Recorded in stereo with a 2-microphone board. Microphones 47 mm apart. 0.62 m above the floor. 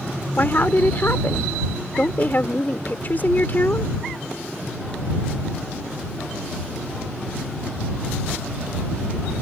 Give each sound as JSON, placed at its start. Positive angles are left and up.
{"t": 0.4, "sound": "a woman speaking", "side_deg": 45}